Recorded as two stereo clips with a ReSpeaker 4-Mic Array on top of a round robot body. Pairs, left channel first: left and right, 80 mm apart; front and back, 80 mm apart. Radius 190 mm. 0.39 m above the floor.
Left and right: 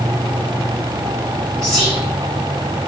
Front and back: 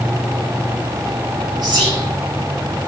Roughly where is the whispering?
Behind.